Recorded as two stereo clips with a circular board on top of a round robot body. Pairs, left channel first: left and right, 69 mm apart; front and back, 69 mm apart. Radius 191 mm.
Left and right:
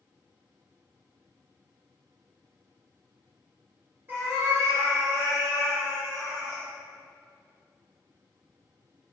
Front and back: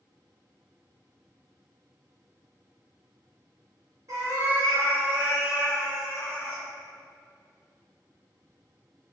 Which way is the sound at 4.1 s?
145° right.